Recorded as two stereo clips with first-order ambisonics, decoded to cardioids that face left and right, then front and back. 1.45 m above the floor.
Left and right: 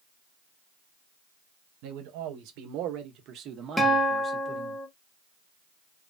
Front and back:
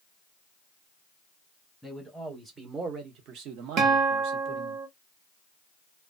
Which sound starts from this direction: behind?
A guitar, at 3.8 s.